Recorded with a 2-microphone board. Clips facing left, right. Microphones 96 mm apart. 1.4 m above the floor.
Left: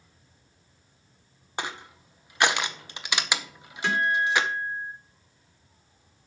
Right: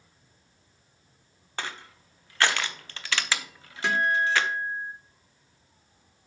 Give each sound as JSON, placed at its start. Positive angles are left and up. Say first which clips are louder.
{"t": 1.6, "sound": "crushing", "louder": "left 2 dB", "side_deg": 20, "distance_m": 0.8}
{"t": 3.8, "sound": "a guitar", "louder": "even", "side_deg": -10, "distance_m": 2.5}